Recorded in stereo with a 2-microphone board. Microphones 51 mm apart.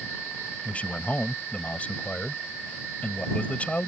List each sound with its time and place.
0.7 s a man speaking: 25° left (ahead or behind)